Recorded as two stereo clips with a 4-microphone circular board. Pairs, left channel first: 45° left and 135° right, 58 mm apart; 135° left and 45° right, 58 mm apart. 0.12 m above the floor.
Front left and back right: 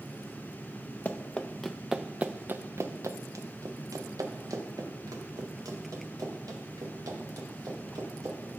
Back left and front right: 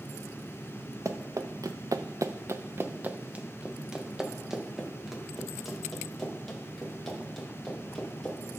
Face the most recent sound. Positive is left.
turn(degrees=-140)